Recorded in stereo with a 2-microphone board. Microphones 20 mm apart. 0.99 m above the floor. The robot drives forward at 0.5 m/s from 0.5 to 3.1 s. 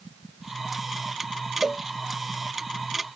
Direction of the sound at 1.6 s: 35° right (ahead or behind).